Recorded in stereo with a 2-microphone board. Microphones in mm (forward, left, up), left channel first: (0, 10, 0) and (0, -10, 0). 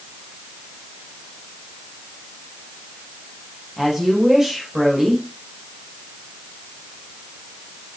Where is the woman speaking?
20° right (ahead or behind), 6.5 m.